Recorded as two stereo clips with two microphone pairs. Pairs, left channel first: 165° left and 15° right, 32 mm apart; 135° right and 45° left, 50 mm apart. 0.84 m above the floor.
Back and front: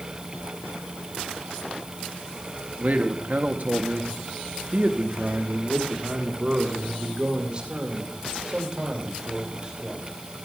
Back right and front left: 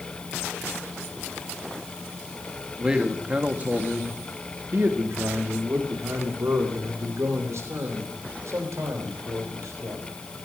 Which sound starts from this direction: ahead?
A man speaking, at 2.8 s.